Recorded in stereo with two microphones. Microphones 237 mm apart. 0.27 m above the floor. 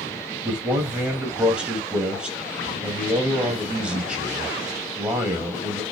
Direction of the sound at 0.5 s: 5° right (ahead or behind).